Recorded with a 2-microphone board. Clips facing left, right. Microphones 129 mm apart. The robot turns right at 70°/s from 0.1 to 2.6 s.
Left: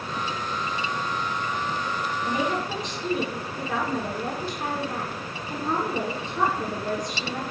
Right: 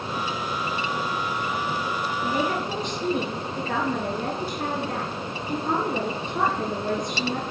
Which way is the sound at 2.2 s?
30° right (ahead or behind).